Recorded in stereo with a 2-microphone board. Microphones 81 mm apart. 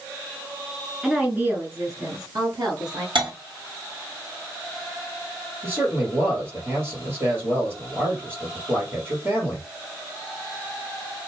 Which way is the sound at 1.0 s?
5° right (ahead or behind).